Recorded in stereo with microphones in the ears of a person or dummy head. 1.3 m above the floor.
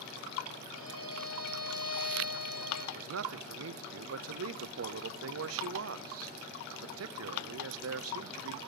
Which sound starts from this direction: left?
A violin, at 0.8 s.